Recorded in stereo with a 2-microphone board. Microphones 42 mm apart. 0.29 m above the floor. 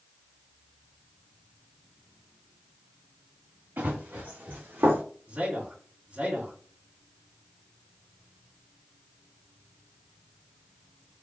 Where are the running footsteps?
60° right (ahead or behind), 1.8 m; by 5.0 s 75° right (ahead or behind), 1.2 m.